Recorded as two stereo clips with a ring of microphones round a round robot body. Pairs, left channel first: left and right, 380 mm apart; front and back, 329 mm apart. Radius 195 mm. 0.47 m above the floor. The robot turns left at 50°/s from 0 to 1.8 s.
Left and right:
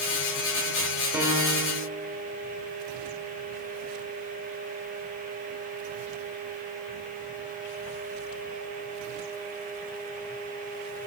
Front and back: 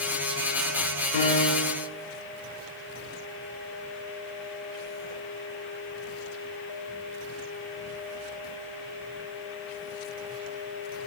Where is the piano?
5° right, 1.0 m; by 1.9 s 35° right, 1.0 m.